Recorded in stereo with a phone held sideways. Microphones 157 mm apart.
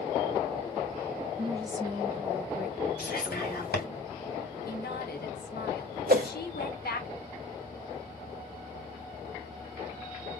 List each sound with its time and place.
1.4 s a woman speaking: 30° right (ahead or behind), 1.6 m; by 4.0 s 10° left (ahead or behind), 1.9 m
3.0 s whispering: 70° left (ahead or behind), 2.5 m
4.7 s a woman speaking: 85° left, 1.7 m
6.1 s a whoosh: 70° right (ahead or behind), 1.0 m